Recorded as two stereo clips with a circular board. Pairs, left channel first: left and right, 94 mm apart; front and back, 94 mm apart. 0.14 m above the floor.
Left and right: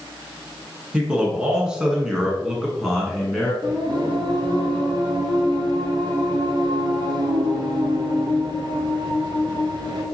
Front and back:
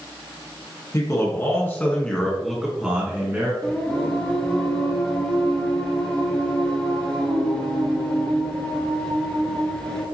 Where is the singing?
75° right, 1.3 m.